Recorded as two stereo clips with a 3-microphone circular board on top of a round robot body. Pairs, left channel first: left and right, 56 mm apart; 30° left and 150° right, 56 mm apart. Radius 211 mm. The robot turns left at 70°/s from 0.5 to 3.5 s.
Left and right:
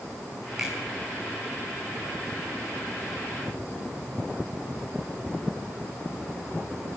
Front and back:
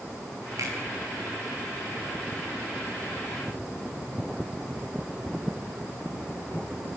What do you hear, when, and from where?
0.6 s a finger snap: 170° right, 7.5 m; by 0.7 s straight behind, 7.5 m